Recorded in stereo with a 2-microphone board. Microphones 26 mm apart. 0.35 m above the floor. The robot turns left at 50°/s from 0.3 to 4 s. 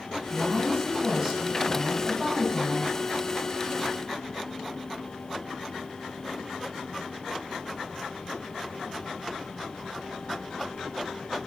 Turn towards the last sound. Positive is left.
turn(degrees=125)